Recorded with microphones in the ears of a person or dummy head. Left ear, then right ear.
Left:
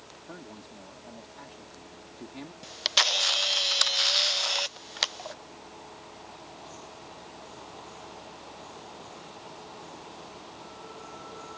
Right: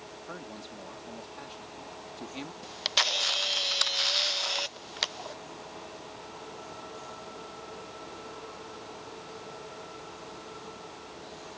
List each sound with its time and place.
0.3 s a man speaking: 35° right (ahead or behind)
2.6 s a camera shutter: 5° left (ahead or behind)